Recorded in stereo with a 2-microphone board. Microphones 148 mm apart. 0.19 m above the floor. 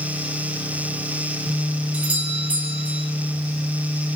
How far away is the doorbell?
About 7 m.